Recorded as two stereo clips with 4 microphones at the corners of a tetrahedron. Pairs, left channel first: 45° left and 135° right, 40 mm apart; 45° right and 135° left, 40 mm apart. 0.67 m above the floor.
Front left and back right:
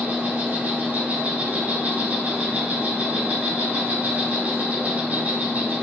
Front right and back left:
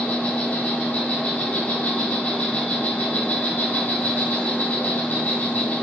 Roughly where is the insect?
Right.